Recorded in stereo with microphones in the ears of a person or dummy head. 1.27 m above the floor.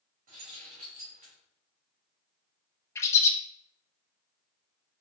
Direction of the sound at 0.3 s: 45° right (ahead or behind).